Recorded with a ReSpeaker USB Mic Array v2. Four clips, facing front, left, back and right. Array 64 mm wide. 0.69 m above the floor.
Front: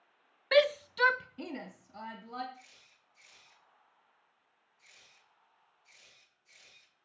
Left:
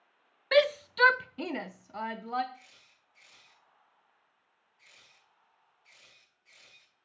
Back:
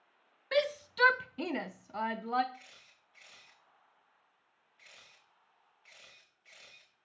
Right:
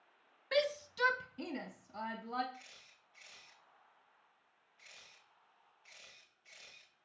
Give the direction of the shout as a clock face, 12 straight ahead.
10 o'clock.